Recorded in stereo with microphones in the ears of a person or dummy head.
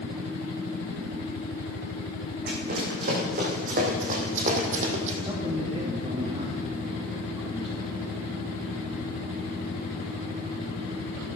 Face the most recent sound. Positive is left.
turn(degrees=-25)  # may be behind; listen again after turning